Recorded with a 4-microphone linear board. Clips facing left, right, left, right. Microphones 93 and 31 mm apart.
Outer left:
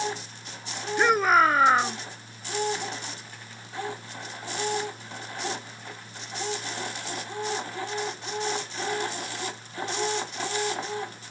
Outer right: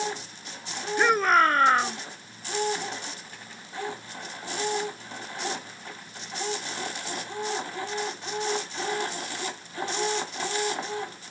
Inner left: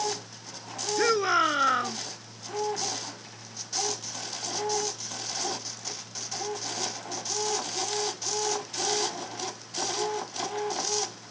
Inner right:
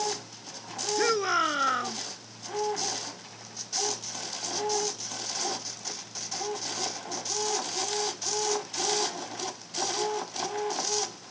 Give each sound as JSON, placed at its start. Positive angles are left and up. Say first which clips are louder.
{"t": 1.0, "sound": "a shout", "louder": "outer left 1 dB, inner left 2 dB", "side_deg": 5}